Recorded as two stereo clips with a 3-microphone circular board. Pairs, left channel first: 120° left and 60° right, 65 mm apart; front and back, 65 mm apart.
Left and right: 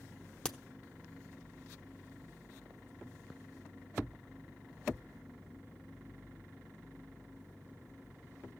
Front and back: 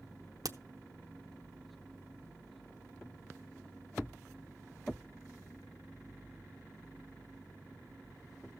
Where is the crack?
165° right, 0.9 m.